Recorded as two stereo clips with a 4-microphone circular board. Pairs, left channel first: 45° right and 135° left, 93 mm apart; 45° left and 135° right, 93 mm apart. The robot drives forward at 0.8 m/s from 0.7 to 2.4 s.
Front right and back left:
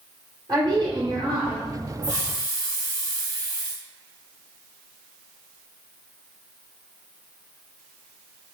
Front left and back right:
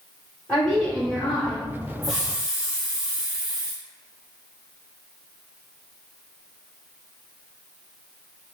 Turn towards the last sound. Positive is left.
turn(degrees=150)